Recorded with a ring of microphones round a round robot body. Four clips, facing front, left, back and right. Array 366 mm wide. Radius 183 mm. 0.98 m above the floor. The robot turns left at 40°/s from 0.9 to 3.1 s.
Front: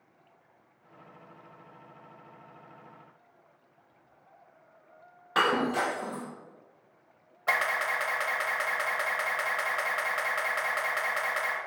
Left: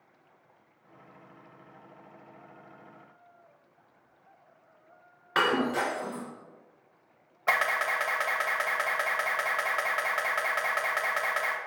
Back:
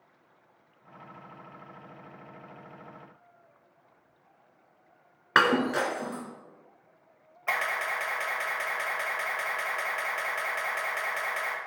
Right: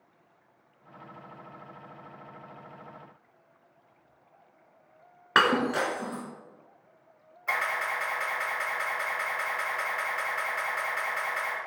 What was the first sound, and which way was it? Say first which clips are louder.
Breaking glass: right 2 dB, back 2 dB; 140° right.